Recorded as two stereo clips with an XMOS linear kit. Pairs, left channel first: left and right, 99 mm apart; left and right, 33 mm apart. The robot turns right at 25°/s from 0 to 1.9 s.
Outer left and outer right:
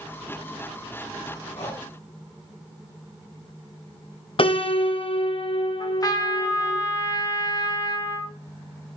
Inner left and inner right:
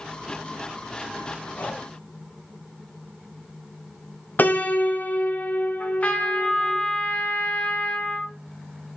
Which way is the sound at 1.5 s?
80° left.